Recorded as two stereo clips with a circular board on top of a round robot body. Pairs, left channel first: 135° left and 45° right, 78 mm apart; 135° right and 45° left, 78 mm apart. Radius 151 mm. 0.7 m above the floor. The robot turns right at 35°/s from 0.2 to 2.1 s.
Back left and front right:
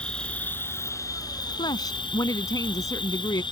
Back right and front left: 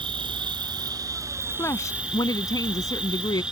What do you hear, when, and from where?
0.0 s an insect: 55° left; by 3.5 s 125° left
1.6 s a woman speaking: 165° left; by 3.4 s straight behind